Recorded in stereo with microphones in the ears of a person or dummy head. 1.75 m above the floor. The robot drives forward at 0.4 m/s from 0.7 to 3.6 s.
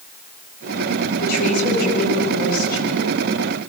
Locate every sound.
1.2 s a woman speaking: 60° left (ahead or behind), 9 m